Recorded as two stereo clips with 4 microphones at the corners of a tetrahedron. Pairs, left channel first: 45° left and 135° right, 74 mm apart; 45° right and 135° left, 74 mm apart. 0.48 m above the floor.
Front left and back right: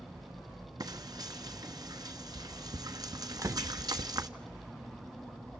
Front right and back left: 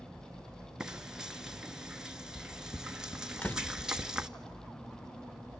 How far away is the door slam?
About 0.7 m.